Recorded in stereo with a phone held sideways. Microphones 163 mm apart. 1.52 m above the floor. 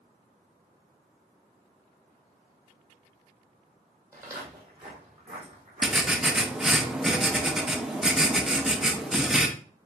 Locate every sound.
4.1 s footsteps: 20° right (ahead or behind), 2 m; by 6.8 s 50° right (ahead or behind), 4 m
5.8 s writing: 5° right (ahead or behind), 0.6 m